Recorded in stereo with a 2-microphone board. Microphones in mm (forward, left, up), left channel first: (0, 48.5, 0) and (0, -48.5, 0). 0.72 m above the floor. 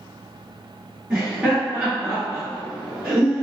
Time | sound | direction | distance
1.1 | laughter | 10° right (ahead or behind) | 1.6 m